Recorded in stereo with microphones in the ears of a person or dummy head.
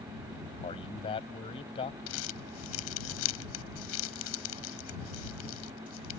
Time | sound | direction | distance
0.6 | a man speaking | 30° left (ahead or behind) | ?
2.1 | crumpling | 85° left | ?